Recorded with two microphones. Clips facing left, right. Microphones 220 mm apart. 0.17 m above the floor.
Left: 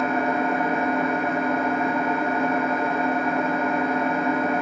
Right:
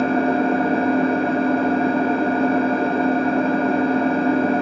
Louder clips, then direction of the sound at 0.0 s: Right 6 dB; 30° right (ahead or behind).